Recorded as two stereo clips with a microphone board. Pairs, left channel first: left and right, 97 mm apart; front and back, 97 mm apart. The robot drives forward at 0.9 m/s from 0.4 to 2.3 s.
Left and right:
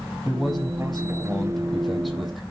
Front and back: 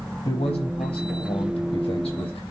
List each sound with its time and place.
0.2 s a man speaking: straight ahead, 7 m; by 2.4 s 5° left, 5.5 m